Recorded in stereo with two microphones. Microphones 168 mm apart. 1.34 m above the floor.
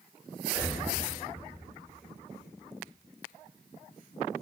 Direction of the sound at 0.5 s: 50° left (ahead or behind).